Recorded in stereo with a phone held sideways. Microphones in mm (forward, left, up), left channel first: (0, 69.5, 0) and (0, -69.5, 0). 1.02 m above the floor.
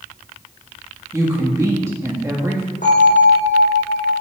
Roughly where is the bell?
Left.